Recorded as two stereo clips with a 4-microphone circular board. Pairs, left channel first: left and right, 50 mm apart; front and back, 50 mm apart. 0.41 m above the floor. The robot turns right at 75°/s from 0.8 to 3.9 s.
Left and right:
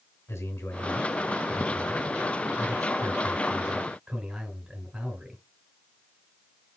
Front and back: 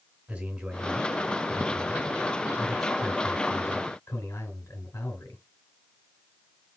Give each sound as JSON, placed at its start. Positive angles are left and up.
{"t": 0.3, "sound": "a man speaking", "azimuth_deg": 110, "distance_m": 3.5}